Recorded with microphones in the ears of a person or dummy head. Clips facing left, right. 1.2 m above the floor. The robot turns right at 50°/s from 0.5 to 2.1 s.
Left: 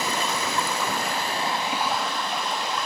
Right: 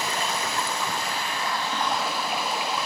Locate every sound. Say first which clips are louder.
0.0 s running water: left 2 dB; 105° left, 1.1 m; by 2.9 s 175° right, 1.1 m